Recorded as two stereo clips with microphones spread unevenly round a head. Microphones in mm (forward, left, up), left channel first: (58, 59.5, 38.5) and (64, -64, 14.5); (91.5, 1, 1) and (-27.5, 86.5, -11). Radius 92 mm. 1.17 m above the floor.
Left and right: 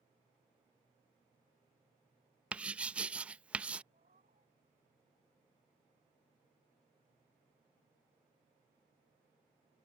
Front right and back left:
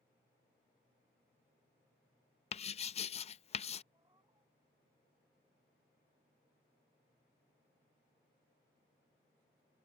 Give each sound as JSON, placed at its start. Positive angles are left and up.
{"t": 2.5, "sound": "writing", "azimuth_deg": 0}
{"t": 3.9, "sound": "a cat meowing", "azimuth_deg": -140}